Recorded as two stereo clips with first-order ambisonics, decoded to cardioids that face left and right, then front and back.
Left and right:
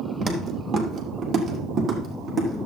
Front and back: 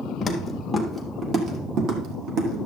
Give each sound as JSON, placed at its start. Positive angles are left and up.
{"t": 0.2, "sound": "footsteps", "azimuth_deg": -55, "distance_m": 1.3}